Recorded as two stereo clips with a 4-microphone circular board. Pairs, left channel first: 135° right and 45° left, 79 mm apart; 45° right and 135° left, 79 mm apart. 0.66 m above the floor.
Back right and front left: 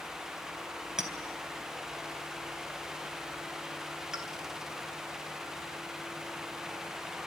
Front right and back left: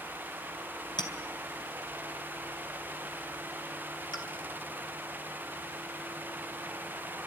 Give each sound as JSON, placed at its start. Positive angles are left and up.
{"t": 1.0, "sound": "a clink", "azimuth_deg": -35, "distance_m": 3.5}